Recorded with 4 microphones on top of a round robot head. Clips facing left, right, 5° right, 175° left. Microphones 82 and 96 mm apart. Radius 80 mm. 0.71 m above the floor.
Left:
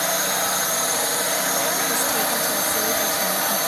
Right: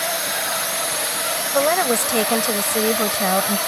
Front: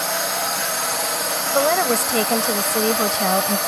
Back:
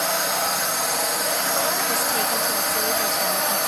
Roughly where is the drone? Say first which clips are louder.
Left 1 dB, even; left.